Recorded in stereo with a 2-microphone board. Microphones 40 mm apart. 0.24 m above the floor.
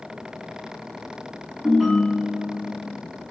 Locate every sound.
1.6 s a ringtone: 5° right (ahead or behind), 0.7 m